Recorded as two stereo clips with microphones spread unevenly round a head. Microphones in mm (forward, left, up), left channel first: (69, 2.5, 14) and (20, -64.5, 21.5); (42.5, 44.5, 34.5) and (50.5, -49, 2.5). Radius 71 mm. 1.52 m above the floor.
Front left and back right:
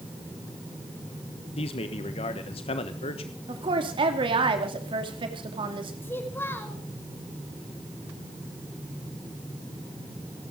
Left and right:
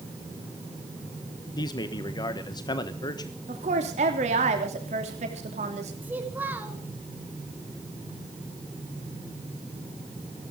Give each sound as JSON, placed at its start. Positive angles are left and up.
{"t": 1.6, "sound": "a man speaking", "azimuth_deg": 55, "distance_m": 1.3}
{"t": 3.5, "sound": "a woman speaking", "azimuth_deg": -110, "distance_m": 3.0}
{"t": 6.0, "sound": "a child speaking", "azimuth_deg": -10, "distance_m": 4.5}